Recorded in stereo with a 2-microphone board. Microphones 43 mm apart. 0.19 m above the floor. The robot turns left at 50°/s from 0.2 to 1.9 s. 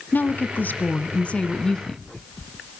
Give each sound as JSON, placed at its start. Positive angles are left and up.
{"t": 0.1, "sound": "a woman speaking", "azimuth_deg": 100, "distance_m": 1.5}